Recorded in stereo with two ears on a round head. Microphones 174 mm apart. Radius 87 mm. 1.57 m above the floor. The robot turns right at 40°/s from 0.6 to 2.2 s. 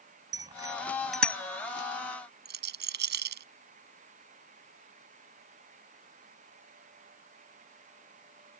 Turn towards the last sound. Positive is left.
turn(degrees=-65)  # may be behind; listen again after turning